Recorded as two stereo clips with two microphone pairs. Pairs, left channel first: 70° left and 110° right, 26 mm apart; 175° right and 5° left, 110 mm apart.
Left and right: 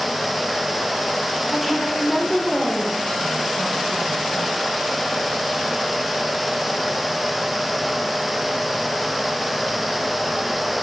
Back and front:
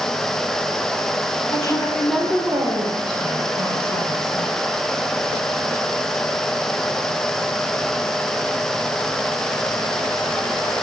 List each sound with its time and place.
1.5 s a woman speaking: 150° left, 1.2 m; by 4.7 s 25° left, 3.5 m